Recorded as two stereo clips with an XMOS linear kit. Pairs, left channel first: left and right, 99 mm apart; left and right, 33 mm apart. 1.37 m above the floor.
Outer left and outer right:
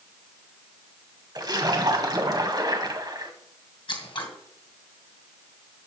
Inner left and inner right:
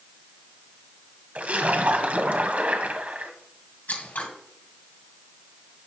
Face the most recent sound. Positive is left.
turn(degrees=55)  # may be behind; listen again after turning